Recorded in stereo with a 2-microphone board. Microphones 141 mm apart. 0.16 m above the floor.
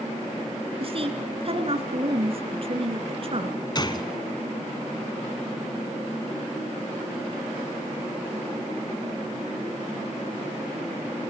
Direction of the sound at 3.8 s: 35° left (ahead or behind).